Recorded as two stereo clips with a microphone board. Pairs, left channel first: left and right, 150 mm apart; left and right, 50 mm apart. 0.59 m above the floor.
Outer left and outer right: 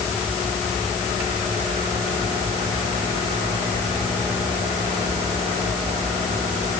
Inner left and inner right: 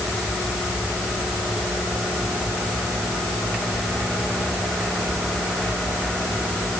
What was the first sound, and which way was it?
Only background noise.